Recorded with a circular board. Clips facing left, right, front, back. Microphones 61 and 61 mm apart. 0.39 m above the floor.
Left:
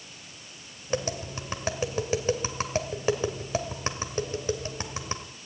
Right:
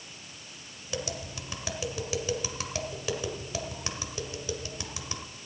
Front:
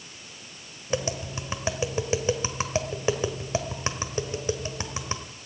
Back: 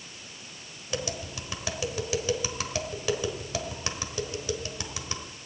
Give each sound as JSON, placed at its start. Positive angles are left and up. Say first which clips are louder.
{"t": 0.9, "sound": "tapping", "louder": "left 6 dB, front 5 dB", "azimuth_deg": 50, "distance_m": 1.4}